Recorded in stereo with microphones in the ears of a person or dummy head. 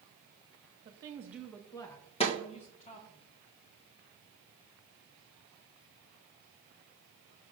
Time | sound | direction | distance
0.8 | a woman speaking | 25° right (ahead or behind) | 0.7 m
2.2 | a snare drum | 30° left (ahead or behind) | 1.3 m